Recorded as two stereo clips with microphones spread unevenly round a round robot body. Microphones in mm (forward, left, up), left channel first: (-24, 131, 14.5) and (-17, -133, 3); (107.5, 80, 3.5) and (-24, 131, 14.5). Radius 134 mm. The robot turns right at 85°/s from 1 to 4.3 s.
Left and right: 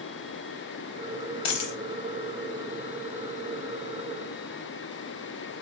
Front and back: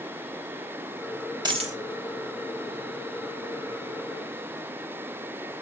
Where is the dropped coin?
95° left, 0.9 m; by 1.8 s 120° left, 0.9 m.